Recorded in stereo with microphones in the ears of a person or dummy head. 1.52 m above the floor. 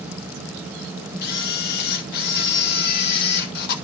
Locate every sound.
1.2 s a camera shutter: 60° left (ahead or behind), 1.0 m